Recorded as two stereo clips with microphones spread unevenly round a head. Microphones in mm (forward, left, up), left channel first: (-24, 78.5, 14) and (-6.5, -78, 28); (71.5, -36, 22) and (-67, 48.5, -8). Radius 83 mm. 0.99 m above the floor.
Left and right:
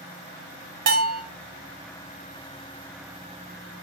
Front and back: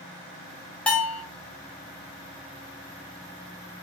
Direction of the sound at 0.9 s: 120° right.